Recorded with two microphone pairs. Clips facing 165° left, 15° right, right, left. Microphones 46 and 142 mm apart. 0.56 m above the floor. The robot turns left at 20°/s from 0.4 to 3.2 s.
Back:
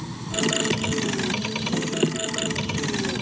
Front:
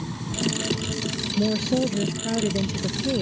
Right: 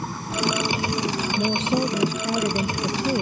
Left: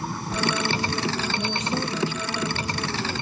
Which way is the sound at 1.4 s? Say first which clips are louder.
Front 4 dB, right 5 dB; 25° right.